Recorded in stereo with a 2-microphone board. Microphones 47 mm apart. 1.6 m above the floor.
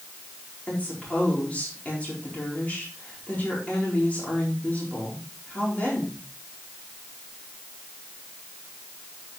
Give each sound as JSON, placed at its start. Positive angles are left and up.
{"t": 0.7, "sound": "a woman speaking", "side_deg": 35, "distance_m": 4.5}